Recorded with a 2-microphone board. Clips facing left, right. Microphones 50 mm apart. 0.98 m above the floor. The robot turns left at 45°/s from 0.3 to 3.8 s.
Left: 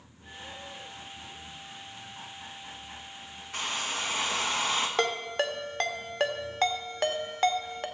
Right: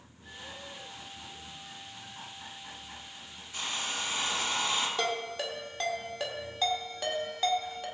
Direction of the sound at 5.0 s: 55° left (ahead or behind).